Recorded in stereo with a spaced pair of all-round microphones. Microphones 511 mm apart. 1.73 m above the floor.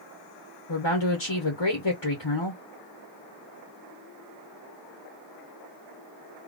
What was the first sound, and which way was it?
A woman speaking, 55° left (ahead or behind).